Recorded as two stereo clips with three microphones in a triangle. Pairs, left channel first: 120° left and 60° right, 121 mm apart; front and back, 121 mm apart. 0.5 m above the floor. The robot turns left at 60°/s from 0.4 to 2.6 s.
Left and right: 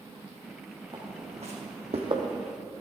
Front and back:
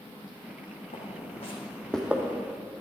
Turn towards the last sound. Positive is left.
turn(degrees=-145)